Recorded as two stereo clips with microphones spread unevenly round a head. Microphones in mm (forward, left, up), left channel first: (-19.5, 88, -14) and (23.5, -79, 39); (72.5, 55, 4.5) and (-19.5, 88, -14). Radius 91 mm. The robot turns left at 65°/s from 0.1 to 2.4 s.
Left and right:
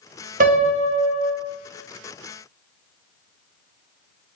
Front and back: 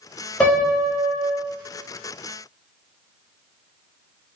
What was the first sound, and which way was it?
A piano, 100° right.